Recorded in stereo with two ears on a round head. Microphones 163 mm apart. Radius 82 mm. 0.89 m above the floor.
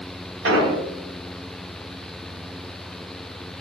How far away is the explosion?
About 1.1 m.